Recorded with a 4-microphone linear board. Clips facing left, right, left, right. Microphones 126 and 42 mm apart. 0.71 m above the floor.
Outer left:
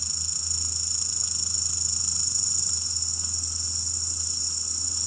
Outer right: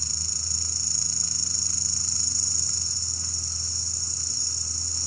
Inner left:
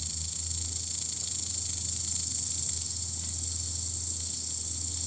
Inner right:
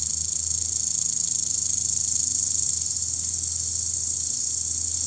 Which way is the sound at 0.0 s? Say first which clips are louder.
Outer right 2 dB, inner right 1 dB; 15° left (ahead or behind).